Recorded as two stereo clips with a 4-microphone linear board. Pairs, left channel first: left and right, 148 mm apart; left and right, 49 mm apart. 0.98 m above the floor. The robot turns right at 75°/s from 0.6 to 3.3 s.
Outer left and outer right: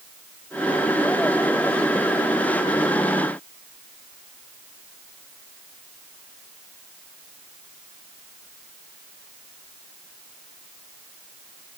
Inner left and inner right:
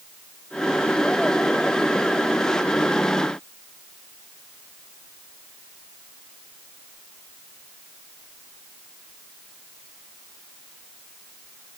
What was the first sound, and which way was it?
Only background noise.